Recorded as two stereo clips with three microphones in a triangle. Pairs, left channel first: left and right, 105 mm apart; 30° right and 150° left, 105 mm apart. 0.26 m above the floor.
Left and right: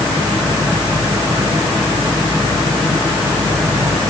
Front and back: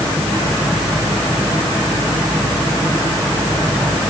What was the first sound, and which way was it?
Only background noise.